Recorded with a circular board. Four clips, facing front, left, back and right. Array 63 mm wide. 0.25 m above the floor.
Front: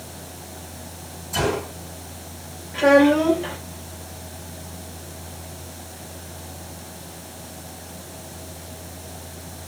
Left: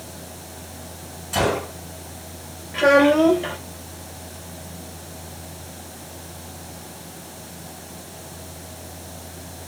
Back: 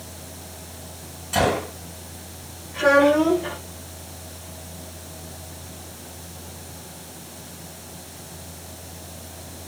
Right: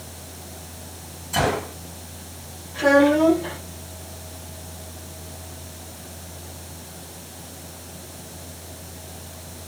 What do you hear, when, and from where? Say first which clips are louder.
1.3 s a gunshot: left 1 dB, back 2 dB; 145° left, 5.5 m
2.7 s a child speaking: left 1 dB, front 1 dB; 75° left, 3.5 m